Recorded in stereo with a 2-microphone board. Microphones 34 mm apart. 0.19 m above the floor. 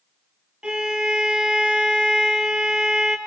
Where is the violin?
30° right (ahead or behind), 1.6 m.